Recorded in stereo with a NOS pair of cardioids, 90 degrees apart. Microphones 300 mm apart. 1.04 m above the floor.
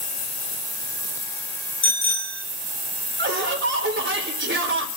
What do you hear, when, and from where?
1.8 s a bicycle bell: 40° left, 3 m
3.2 s laughter: 40° right, 4 m